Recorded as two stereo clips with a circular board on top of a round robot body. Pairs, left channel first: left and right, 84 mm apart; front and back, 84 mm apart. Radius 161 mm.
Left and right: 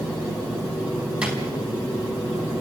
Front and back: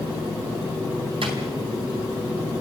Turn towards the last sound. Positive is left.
turn(degrees=-170)